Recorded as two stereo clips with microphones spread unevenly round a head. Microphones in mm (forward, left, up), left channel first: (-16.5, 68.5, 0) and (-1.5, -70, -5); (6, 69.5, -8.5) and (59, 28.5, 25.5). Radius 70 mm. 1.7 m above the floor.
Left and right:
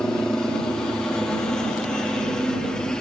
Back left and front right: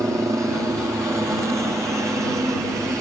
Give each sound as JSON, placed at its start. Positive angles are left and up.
{"t": 0.0, "sound": "a helicopter", "azimuth_deg": 15}